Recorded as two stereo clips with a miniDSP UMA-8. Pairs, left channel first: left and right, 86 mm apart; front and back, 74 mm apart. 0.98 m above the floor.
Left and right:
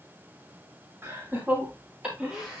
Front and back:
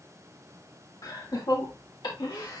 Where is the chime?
I don't hear a chime.